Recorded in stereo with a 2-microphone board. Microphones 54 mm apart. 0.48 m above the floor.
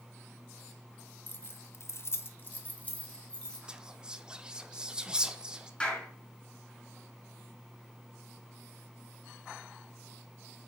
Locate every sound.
1.3 s keys jangling: 35° left (ahead or behind), 1.0 m; by 3.6 s 15° left (ahead or behind), 2 m
3.7 s whispering: 15° right (ahead or behind), 0.8 m
5.8 s a clap: 15° left (ahead or behind), 5.5 m